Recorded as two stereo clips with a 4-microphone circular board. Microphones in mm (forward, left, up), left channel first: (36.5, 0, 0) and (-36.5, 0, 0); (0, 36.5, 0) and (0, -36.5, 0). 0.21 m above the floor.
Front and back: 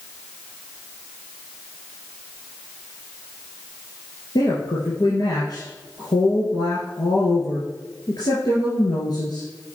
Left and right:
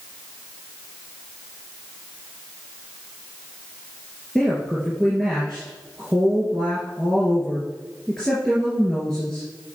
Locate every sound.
4.3 s a woman speaking: 10° left, 3 m